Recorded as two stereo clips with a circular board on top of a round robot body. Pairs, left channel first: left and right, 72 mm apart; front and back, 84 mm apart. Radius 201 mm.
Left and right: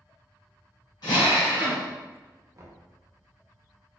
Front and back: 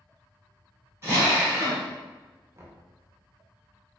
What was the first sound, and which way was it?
A drill, 120° left.